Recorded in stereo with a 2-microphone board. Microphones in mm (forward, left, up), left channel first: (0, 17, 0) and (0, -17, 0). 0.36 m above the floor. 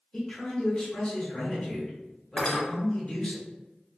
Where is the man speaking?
20° left (ahead or behind), 1.1 m.